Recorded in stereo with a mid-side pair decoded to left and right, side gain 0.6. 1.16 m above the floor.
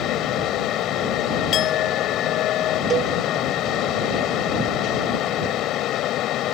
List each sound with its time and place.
0.0 s a fan: 60° left
1.5 s a clink: 55° left
2.9 s a cowbell: 40° right